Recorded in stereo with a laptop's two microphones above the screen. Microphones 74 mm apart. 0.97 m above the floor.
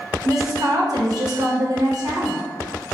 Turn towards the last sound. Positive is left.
turn(degrees=-55)  # may be behind; listen again after turning